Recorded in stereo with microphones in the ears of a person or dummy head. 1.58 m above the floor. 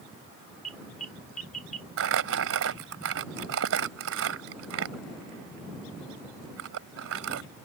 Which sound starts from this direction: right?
Crumpling, at 2.0 s.